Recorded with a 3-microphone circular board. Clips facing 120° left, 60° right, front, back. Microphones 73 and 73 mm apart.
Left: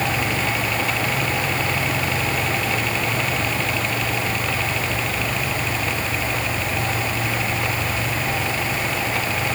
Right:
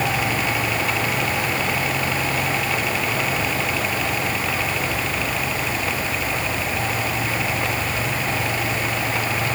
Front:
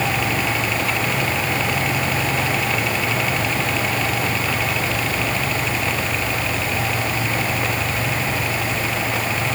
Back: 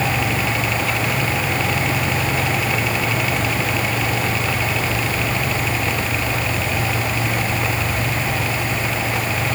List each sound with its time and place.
Only background noise.